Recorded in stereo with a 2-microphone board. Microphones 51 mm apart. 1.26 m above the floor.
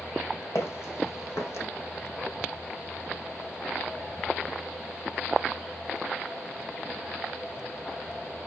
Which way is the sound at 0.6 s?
60° left (ahead or behind).